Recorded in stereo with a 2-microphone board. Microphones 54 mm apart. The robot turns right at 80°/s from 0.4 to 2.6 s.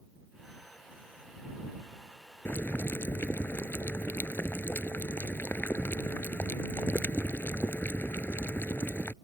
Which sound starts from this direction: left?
Boiling, at 2.5 s.